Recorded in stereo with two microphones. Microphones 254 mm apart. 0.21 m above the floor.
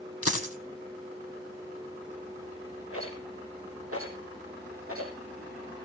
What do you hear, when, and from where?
0.2 s a dropped coin: 65° left (ahead or behind), 2.5 m
2.9 s a rattle: 60° right (ahead or behind), 4.5 m